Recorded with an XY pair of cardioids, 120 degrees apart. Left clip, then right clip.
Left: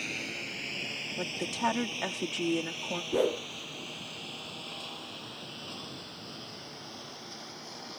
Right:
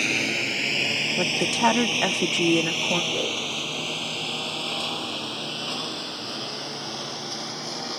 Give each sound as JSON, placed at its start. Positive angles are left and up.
{"t": 0.0, "sound": "a lawn mower", "azimuth_deg": -60}
{"t": 1.2, "sound": "a woman speaking", "azimuth_deg": -50}
{"t": 3.1, "sound": "a whoosh", "azimuth_deg": 25}